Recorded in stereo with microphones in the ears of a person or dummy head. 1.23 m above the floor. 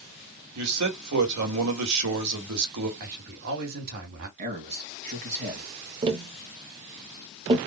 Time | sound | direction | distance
0.6 | a man speaking | 80° right | 1.9 m
3.0 | a man speaking | 55° right (ahead or behind) | 2 m
4.4 | a man speaking | 50° right (ahead or behind) | 1.8 m
6.0 | tapping | 30° right (ahead or behind) | 0.7 m